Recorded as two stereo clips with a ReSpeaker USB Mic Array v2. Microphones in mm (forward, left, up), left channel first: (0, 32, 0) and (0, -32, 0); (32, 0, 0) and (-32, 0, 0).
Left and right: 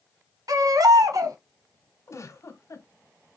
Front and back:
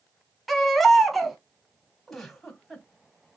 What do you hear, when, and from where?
0.5 s a baby crying: 90° right, 0.8 m
2.1 s a giggle: 85° left, 1.0 m